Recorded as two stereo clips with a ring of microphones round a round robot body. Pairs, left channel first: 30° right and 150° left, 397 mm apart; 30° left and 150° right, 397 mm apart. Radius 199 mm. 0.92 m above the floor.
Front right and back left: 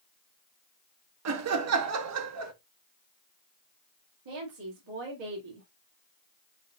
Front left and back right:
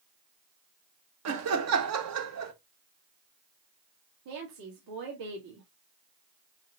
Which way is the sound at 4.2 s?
170° left.